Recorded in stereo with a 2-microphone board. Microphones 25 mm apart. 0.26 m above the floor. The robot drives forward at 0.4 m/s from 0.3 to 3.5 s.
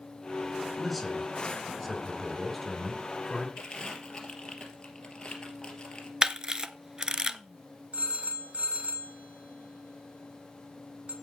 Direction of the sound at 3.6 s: 30° left (ahead or behind).